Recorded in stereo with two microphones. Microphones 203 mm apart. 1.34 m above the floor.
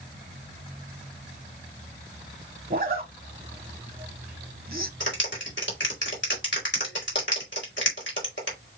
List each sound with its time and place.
2.7 s a zipper: 45° right (ahead or behind), 0.8 m
5.0 s a clap: 65° left (ahead or behind), 2.5 m